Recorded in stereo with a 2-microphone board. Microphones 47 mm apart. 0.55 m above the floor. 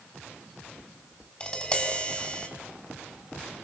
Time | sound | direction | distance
1.4 | tapping | 20° left (ahead or behind) | 4.5 m